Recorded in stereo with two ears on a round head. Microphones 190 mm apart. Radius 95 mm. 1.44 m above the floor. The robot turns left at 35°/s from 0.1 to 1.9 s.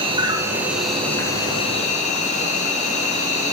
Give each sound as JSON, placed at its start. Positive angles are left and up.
{"t": 0.0, "sound": "an insect", "azimuth_deg": -155, "distance_m": 1.6}